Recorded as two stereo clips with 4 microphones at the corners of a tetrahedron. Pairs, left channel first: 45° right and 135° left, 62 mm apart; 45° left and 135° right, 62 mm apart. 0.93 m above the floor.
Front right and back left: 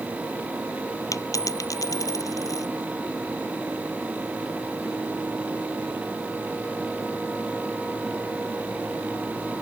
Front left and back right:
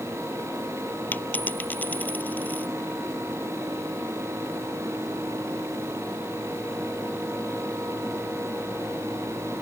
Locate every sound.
1.1 s a dropped coin: 15° right